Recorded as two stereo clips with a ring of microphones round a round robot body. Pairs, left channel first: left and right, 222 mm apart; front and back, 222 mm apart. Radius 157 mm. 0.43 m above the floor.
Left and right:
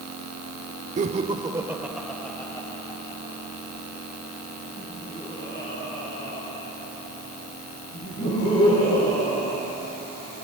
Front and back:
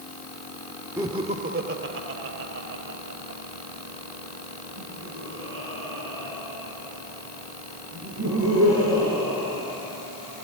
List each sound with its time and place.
1.0 s laughter: 110° right, 0.9 m; by 10.5 s 155° left, 8.5 m